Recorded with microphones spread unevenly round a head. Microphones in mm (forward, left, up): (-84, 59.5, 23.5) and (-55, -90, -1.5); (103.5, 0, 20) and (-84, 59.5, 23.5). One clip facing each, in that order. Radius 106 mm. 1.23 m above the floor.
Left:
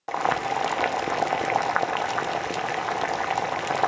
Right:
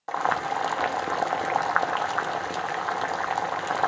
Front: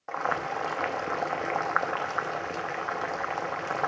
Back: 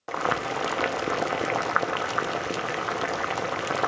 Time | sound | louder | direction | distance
0.1 | boiling | left 2 dB, back 3 dB | 150° left | 0.7 m